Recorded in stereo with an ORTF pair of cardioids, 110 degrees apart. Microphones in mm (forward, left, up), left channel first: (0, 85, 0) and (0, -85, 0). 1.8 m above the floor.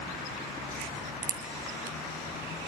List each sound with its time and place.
0.8 s a crack: 55° right, 1.6 m